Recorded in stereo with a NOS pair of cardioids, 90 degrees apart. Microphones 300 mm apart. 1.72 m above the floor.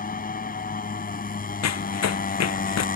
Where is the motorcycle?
30° left.